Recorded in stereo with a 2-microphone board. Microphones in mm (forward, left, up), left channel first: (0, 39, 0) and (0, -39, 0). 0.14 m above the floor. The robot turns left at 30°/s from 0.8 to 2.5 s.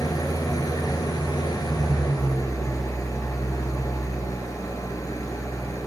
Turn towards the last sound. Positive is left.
turn(degrees=60)